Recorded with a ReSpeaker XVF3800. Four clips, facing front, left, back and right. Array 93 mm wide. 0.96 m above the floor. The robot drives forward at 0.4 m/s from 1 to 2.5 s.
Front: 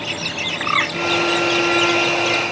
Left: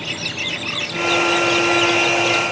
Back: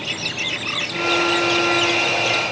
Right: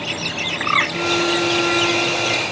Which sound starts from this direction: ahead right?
A bird, at 0.6 s.